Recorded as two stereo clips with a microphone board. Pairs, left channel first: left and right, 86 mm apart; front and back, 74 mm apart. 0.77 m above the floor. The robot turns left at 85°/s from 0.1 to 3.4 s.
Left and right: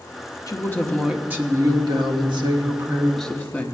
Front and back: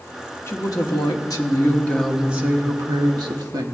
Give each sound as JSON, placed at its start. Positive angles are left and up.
{"t": 0.5, "sound": "a woman speaking", "azimuth_deg": 50, "distance_m": 1.2}